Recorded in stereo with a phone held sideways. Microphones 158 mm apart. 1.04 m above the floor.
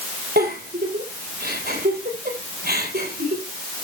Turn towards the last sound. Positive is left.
turn(degrees=-85)